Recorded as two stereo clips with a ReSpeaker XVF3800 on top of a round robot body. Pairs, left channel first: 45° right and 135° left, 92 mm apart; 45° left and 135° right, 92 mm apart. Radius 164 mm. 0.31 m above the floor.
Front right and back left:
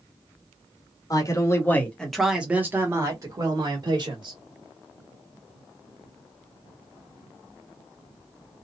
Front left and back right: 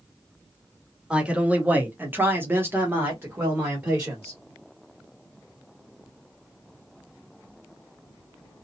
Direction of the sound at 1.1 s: 60° right.